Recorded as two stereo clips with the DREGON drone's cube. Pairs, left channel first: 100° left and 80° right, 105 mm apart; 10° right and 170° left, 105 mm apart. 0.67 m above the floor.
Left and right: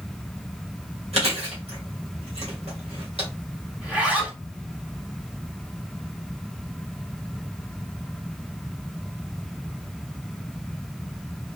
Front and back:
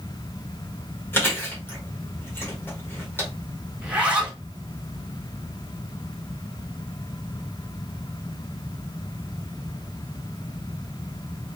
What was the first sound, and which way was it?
Chewing, 80° right.